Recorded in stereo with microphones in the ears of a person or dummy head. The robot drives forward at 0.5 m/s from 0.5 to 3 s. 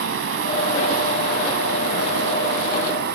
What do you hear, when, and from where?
0.0 s running water: 75° right (ahead or behind); by 3.2 s 70° right (ahead or behind)